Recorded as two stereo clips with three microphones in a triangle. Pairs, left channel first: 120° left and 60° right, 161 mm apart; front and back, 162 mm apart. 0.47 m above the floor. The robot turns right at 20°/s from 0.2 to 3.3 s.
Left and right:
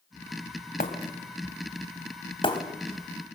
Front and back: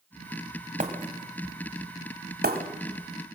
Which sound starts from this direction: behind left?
Breaking glass, at 0.8 s.